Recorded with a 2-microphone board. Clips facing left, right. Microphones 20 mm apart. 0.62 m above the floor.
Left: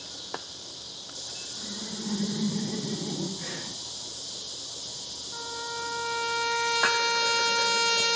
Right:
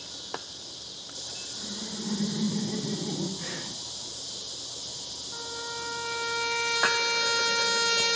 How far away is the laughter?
About 1.2 m.